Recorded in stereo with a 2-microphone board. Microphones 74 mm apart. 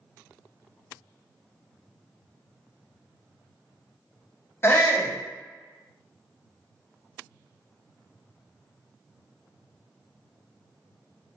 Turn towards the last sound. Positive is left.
turn(degrees=35)  # may be behind; listen again after turning